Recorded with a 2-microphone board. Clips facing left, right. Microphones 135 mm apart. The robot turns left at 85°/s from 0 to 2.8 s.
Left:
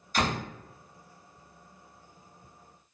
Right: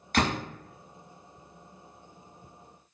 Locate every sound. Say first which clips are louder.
0.1 s a door slam: right 2 dB; 70° right (ahead or behind), 1.2 m; by 0.4 s 50° right (ahead or behind), 1.2 m